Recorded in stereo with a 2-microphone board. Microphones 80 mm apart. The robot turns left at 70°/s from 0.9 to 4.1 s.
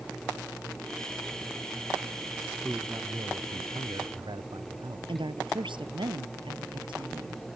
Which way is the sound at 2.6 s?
10° right.